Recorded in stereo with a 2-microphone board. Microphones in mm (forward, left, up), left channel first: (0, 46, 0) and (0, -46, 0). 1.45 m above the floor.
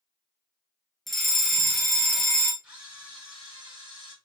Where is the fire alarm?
Centre (ahead or behind), 1.0 m.